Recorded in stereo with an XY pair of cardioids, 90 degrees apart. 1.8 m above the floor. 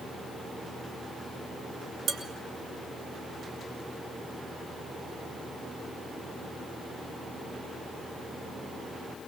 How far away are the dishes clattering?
About 2.5 m.